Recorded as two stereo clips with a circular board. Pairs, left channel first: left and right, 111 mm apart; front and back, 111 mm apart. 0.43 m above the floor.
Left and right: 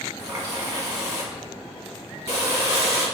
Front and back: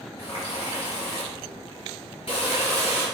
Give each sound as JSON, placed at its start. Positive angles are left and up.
{"t": 0.2, "sound": "a running tap", "azimuth_deg": -30, "distance_m": 2.0}